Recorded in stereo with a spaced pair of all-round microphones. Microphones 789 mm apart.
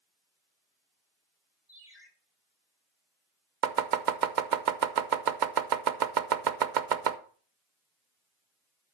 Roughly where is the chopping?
Right.